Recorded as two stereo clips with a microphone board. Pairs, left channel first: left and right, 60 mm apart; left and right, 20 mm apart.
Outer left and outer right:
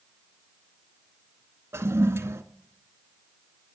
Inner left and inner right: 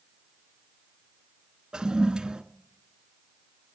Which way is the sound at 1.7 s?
45° right (ahead or behind).